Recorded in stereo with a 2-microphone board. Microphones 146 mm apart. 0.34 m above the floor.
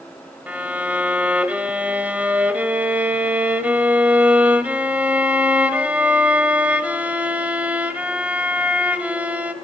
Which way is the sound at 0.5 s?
10° right (ahead or behind).